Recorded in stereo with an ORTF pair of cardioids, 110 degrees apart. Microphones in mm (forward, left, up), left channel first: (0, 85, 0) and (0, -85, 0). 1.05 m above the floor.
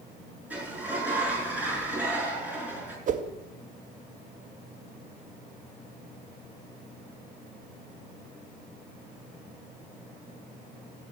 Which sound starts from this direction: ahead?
A sliding door, at 0.5 s.